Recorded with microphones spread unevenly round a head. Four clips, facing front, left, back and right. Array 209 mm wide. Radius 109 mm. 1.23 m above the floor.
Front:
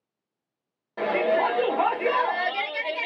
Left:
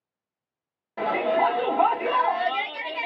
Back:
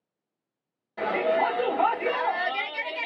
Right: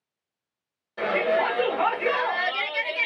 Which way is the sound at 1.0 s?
35° left.